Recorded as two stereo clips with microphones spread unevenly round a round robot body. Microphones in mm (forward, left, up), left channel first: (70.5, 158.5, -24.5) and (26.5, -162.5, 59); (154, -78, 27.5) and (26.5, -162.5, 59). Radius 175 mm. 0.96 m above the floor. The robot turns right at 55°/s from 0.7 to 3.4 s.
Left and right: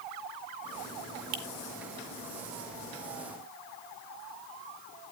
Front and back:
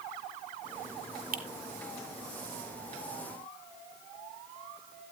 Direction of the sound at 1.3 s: 120° right.